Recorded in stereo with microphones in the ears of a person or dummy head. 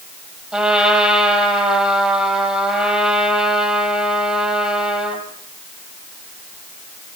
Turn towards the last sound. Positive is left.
turn(degrees=0)  # may be behind; listen again after turning